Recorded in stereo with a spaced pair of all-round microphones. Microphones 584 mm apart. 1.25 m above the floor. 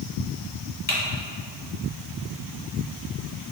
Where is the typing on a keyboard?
15° left (ahead or behind), 1.1 m.